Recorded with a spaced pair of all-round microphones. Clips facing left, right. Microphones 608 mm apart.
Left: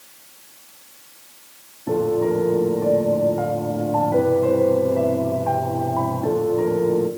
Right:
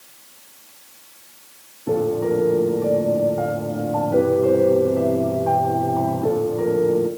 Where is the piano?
Centre (ahead or behind), 2.5 m.